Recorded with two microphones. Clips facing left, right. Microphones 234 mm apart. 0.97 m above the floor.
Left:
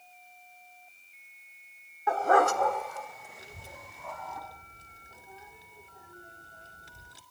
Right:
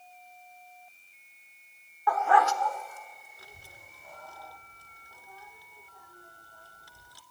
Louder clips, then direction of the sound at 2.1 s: Left 2 dB; 25° left (ahead or behind).